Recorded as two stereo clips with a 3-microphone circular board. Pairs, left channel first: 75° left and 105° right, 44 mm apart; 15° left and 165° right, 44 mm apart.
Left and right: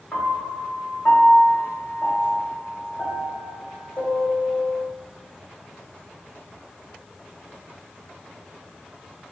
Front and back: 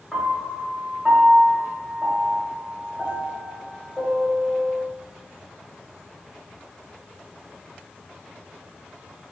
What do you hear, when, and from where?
0.1 s a piano: 95° left, 1.0 m